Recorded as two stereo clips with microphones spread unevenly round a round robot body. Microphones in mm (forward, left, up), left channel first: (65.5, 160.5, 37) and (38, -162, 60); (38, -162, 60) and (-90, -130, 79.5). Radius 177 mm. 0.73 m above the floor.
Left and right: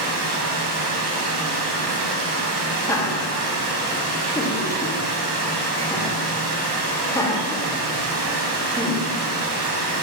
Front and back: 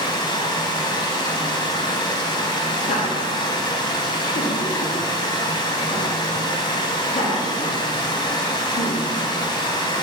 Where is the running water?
70° right, 0.8 m.